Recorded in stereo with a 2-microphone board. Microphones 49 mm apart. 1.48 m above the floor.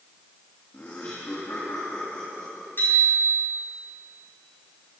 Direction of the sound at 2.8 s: 45° left (ahead or behind).